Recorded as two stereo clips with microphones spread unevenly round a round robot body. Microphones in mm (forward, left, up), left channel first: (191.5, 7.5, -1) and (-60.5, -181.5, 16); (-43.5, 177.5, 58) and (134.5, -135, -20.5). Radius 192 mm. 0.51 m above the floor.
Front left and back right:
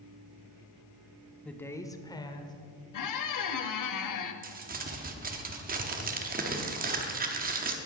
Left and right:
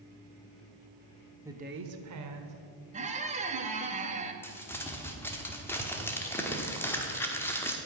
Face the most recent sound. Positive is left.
turn(degrees=-135)